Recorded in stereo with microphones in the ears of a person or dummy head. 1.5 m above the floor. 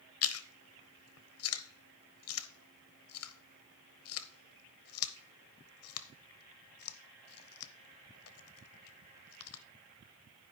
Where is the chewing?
70° left (ahead or behind), 0.8 m.